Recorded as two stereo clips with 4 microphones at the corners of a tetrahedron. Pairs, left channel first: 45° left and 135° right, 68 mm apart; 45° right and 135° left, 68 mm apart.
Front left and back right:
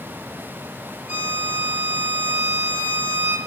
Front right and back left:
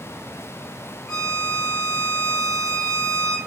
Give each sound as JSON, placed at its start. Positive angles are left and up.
{"t": 1.1, "sound": "a violin", "azimuth_deg": -85, "distance_m": 1.1}